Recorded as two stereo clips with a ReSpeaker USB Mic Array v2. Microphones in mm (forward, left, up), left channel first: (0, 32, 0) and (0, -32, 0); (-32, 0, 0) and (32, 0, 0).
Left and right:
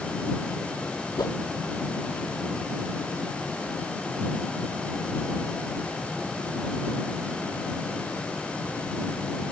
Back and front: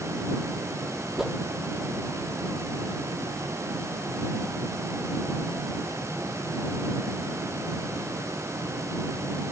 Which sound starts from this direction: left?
A whoosh, at 1.2 s.